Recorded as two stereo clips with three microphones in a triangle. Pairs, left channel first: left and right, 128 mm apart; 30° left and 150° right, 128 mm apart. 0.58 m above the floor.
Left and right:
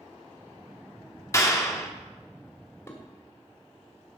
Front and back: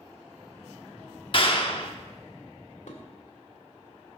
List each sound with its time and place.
1.3 s a clap: 35° left, 0.9 m
2.9 s dishes clattering: 25° left, 1.8 m